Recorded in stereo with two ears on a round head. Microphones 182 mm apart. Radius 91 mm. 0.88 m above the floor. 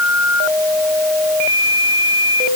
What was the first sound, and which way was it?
Only background noise.